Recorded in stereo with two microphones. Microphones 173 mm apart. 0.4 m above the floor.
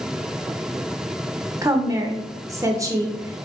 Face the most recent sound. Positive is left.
turn(degrees=-20)  # may be behind; listen again after turning